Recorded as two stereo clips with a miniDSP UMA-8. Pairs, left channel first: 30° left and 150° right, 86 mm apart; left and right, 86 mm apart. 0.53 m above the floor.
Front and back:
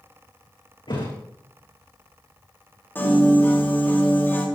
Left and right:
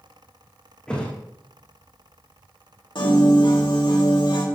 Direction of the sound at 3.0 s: 90° left.